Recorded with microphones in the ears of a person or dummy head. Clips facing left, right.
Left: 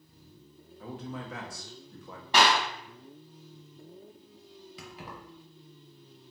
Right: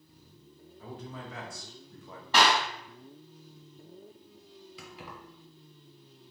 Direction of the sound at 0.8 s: 60° left (ahead or behind).